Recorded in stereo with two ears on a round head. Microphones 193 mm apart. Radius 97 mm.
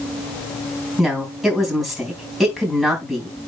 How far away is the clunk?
I don't hear a clunk.